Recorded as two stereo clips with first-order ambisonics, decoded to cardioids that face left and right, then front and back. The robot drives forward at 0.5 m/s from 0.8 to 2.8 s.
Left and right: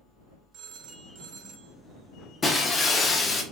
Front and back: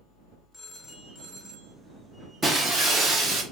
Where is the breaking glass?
140° left, 0.8 m; by 3.4 s 155° left, 0.8 m.